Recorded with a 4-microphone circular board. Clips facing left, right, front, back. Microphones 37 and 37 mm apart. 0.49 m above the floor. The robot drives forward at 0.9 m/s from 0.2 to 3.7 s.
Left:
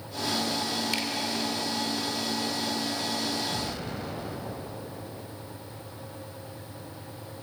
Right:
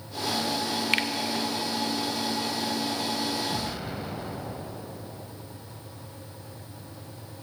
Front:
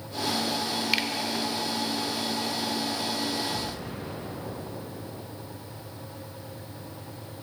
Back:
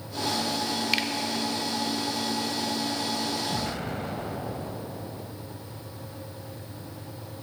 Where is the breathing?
No breathing in this recording.